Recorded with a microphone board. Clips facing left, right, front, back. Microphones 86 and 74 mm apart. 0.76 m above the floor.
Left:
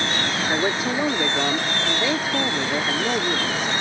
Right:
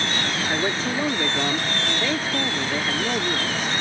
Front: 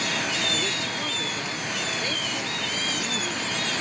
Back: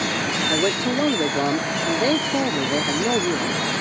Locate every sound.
0.5 s a man speaking: 165° left